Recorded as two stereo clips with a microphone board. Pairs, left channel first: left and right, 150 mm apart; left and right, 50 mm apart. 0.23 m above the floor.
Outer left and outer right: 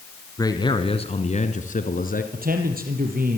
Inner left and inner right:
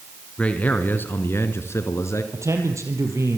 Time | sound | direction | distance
0.4 | a man speaking | 25° left (ahead or behind) | 2.5 m
2.3 | a man speaking | 70° right (ahead or behind) | 5.5 m